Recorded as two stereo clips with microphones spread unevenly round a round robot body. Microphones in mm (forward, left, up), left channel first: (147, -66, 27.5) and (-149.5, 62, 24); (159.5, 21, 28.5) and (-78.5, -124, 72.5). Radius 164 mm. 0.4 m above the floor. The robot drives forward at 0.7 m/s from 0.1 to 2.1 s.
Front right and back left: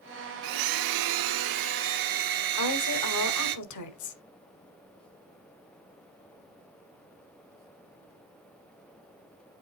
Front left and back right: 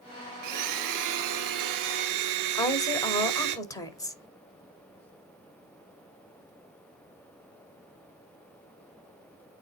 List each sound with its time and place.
0.4 s a blender: straight behind, 0.7 m
2.5 s a woman speaking: 40° right, 2.5 m